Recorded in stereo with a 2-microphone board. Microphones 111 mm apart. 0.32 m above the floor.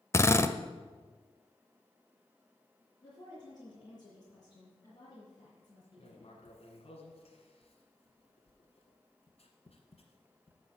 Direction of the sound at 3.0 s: 40° left (ahead or behind).